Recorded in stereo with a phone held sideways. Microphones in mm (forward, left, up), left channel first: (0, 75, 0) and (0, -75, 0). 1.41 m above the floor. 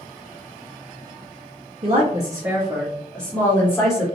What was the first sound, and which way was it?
A woman speaking, 45° right (ahead or behind).